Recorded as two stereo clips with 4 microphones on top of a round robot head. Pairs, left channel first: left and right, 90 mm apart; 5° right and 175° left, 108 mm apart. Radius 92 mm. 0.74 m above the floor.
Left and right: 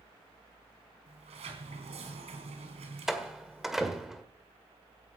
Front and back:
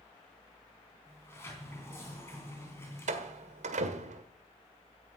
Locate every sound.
1.1 s a sliding door: 75° right, 3 m
3.1 s a door slam: 175° right, 1.6 m